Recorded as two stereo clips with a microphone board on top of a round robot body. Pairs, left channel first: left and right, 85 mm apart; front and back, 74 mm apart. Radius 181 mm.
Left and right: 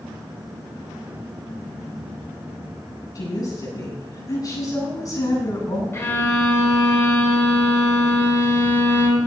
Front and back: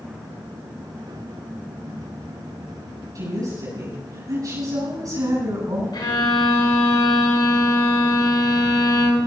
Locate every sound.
3.1 s a woman speaking: 140° left, 7.5 m
5.9 s a violin: 25° left, 5 m